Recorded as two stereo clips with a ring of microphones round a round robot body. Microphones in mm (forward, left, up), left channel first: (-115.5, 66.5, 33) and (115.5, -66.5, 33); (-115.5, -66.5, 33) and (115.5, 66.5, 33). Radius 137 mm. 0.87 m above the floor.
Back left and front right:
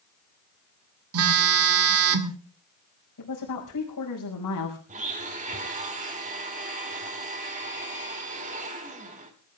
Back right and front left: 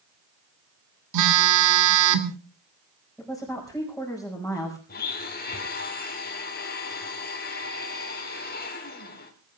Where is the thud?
I don't hear a thud.